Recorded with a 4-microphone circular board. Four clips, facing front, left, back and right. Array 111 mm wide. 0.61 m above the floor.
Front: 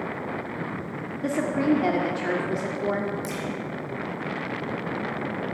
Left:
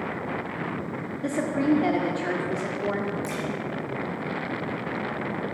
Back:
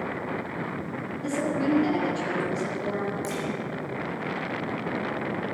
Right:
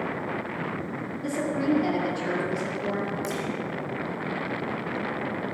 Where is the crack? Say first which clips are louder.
Right 1 dB, back 1 dB; 85° left, 5.5 m.